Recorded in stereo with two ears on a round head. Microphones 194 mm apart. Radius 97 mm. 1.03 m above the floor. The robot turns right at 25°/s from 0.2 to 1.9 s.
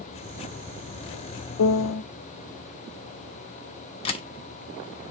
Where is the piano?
70° left (ahead or behind), 0.5 m; by 2.0 s 65° left (ahead or behind), 0.5 m.